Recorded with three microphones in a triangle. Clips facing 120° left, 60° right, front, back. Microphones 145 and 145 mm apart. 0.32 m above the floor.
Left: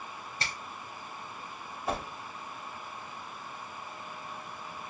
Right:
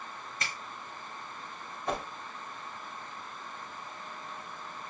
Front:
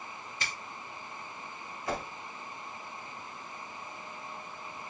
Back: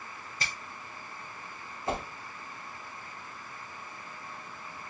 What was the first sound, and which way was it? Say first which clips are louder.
A finger snap: left 1 dB, back 1 dB; 155° left.